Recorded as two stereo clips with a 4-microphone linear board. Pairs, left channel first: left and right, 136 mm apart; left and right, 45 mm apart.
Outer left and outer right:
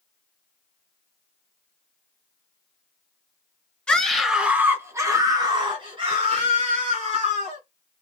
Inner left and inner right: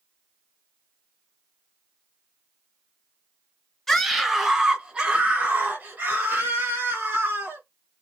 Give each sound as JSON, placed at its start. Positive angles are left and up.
{"t": 3.9, "sound": "a scream", "side_deg": 5, "distance_m": 1.2}